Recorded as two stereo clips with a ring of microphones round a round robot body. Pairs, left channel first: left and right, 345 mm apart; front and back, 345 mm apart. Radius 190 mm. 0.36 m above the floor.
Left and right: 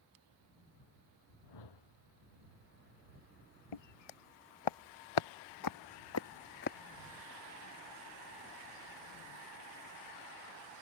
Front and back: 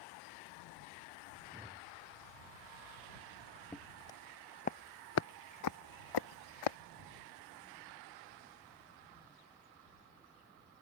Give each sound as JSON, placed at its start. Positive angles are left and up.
{"t": 1.5, "sound": "a whoosh", "azimuth_deg": 100}
{"t": 3.7, "sound": "footsteps", "azimuth_deg": 85}